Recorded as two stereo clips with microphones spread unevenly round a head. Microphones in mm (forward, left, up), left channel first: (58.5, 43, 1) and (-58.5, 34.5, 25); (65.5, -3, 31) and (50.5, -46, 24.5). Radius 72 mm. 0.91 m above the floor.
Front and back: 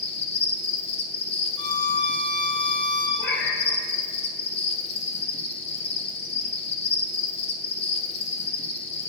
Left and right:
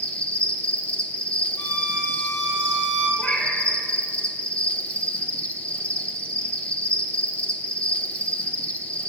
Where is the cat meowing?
5° right, 2.5 m.